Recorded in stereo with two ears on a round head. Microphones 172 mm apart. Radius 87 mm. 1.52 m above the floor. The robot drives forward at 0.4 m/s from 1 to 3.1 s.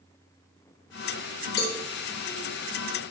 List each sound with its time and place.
1.6 s a cowbell: 50° left (ahead or behind), 2 m